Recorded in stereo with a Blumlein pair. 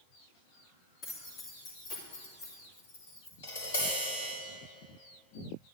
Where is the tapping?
65° left, 4 m.